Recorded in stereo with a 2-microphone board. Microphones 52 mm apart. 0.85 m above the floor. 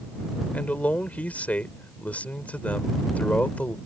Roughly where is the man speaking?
Left.